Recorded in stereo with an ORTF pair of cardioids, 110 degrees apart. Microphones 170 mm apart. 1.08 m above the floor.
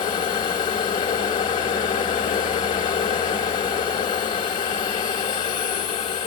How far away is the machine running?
About 2 m.